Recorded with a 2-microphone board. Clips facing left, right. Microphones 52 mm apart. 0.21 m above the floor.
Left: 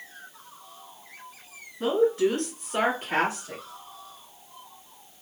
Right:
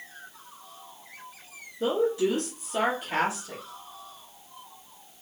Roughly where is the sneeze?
No sneeze in this recording.